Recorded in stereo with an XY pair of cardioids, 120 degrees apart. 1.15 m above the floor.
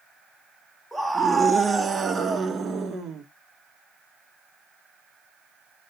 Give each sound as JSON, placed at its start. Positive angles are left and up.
{"t": 0.9, "sound": "a scream", "azimuth_deg": -10, "distance_m": 1.6}